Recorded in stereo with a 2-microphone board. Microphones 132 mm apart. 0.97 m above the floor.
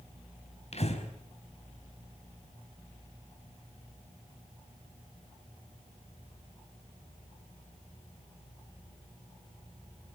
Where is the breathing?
50° left (ahead or behind), 4.5 m.